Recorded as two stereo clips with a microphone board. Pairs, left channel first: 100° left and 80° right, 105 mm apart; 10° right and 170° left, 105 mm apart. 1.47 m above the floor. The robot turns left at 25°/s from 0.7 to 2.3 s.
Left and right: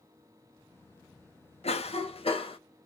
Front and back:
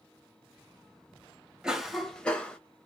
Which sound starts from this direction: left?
A cough, at 1.6 s.